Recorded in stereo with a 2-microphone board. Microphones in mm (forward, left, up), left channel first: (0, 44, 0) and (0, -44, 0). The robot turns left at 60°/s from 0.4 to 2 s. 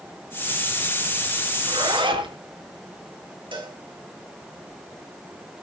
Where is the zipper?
65° right (ahead or behind), 4.5 m; by 2.4 s 75° right (ahead or behind), 4.5 m.